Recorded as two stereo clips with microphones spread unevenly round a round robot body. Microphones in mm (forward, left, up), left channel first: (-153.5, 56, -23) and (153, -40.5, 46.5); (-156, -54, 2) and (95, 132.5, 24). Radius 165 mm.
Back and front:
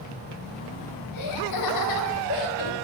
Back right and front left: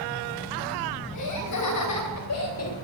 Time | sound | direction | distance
1.1 | laughter | 170° right | 3.5 m